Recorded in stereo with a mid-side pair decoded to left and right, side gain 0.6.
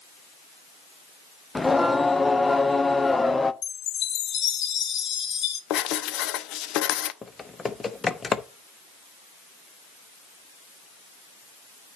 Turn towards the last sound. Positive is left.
turn(degrees=20)